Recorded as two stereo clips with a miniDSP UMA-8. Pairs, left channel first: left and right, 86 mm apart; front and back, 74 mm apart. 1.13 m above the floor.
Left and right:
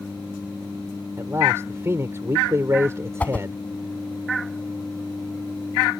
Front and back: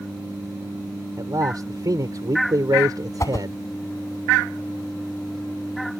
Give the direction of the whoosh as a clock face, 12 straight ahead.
11 o'clock.